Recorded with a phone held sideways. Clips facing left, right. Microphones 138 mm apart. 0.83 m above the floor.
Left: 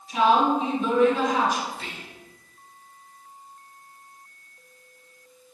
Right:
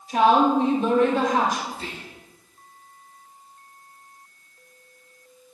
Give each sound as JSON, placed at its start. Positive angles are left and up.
{"t": 0.1, "sound": "a woman speaking", "side_deg": -65, "distance_m": 3.0}
{"t": 1.7, "sound": "whispering", "side_deg": -35, "distance_m": 0.6}